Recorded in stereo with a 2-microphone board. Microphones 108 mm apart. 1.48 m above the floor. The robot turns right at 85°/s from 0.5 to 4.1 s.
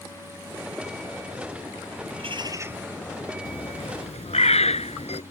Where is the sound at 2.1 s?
70° right; by 3.4 s 35° left.